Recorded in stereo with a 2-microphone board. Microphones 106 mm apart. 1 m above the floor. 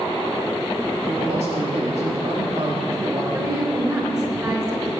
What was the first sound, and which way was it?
A man speaking, 75° right (ahead or behind).